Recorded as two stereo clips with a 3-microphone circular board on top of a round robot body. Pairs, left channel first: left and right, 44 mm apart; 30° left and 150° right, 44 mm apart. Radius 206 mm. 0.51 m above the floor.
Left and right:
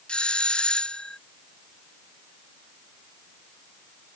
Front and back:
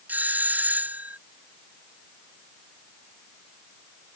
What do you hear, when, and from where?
0.1 s a doorbell: 155° left